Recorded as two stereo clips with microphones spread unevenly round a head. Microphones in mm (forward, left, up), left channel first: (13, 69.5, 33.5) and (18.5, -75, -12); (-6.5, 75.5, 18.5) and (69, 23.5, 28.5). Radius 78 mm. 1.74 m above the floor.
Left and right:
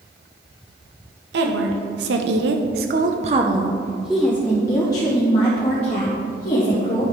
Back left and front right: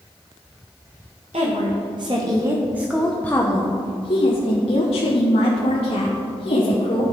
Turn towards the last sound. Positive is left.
turn(degrees=135)